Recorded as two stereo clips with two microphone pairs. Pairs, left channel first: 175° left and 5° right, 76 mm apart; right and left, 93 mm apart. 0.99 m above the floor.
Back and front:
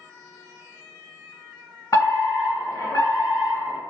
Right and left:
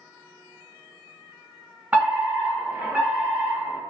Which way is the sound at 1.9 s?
165° left.